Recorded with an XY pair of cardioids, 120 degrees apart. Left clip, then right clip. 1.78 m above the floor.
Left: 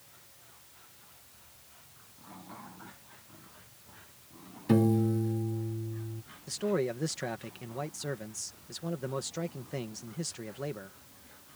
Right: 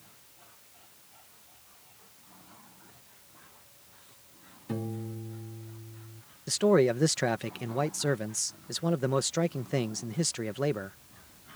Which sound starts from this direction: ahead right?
A man speaking, at 6.5 s.